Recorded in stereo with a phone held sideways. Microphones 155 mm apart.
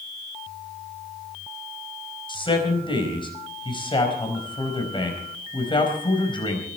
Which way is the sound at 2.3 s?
35° left (ahead or behind).